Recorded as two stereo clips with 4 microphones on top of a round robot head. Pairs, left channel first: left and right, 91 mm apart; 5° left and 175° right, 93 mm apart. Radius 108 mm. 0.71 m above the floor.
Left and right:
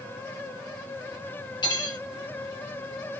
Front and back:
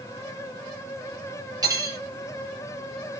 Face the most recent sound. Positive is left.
turn(degrees=135)